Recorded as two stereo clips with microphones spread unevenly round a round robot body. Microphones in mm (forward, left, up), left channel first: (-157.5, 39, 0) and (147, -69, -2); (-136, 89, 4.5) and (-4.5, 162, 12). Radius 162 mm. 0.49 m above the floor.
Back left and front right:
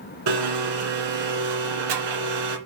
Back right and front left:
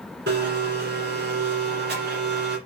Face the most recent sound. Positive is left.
turn(degrees=-5)